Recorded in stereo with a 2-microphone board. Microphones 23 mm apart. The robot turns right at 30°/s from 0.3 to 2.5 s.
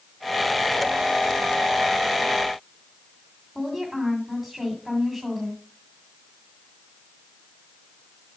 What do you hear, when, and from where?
3.5 s a woman speaking: 15° right (ahead or behind), 2 m